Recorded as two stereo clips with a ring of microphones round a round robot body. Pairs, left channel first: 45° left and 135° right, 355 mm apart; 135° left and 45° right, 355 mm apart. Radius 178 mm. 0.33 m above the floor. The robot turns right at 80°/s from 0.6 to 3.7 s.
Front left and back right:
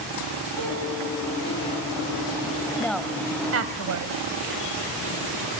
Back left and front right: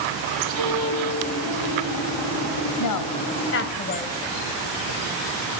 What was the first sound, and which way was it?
A piano, 90° right.